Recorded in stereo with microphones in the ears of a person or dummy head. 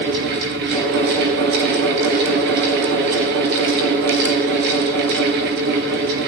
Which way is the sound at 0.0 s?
65° right (ahead or behind).